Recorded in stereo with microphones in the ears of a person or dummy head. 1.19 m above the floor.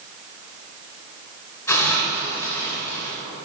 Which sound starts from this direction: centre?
A hiss, at 1.7 s.